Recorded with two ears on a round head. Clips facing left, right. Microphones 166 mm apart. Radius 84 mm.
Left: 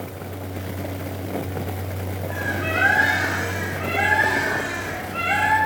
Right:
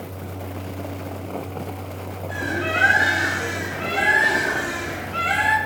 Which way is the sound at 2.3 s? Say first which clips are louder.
Right 2 dB; 70° right (ahead or behind).